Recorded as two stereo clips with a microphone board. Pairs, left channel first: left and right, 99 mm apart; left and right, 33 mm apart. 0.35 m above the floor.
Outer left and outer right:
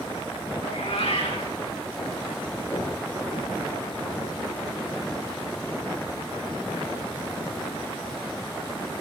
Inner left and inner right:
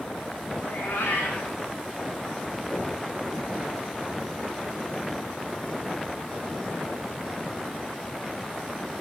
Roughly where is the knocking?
Left.